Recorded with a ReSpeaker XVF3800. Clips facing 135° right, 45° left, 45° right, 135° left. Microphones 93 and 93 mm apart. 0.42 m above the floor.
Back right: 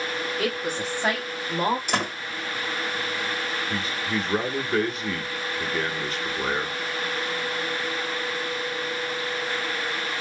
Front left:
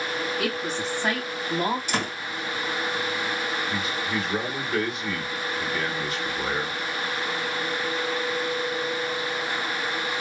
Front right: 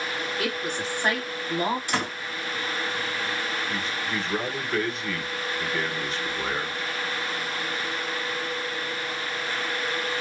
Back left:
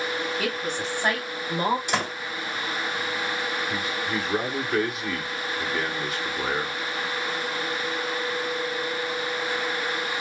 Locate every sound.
0.4 s a woman speaking: 160° right, 2.5 m; by 1.8 s 150° right, 1.7 m
1.9 s a door slam: 155° right, 1.8 m
3.7 s a man speaking: 150° right, 1.0 m